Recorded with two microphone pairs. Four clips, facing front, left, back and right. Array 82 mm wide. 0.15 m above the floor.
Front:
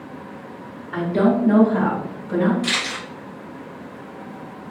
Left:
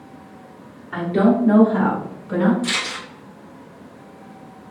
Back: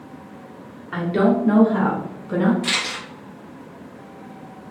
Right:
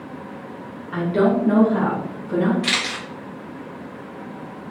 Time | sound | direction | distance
0.9 | a woman speaking | straight behind | 1.9 m
2.6 | a camera shutter | 100° right | 1.5 m